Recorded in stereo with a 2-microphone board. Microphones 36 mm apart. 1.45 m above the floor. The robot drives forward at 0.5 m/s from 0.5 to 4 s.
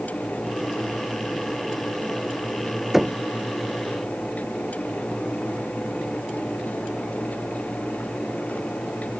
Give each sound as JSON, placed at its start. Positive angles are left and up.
{"t": 2.9, "sound": "knocking", "side_deg": -10}